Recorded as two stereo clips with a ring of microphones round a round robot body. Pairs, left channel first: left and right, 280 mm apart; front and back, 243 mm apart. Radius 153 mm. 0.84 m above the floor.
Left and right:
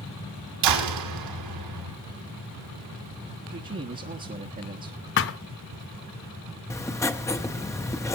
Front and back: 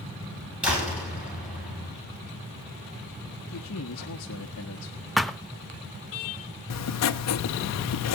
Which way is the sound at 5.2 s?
90° left.